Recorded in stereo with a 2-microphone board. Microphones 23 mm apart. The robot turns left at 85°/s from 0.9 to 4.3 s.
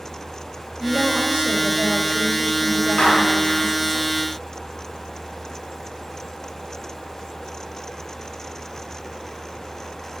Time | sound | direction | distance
0.8 | a woman speaking | 85° right | 3.5 m
3.0 | a clap | 45° left (ahead or behind) | 9 m